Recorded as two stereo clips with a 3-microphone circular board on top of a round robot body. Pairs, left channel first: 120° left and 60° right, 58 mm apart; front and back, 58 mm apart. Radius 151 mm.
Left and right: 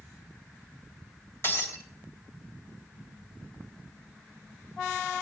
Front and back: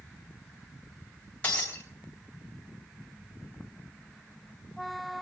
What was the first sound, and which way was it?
Breaking glass, 70° left.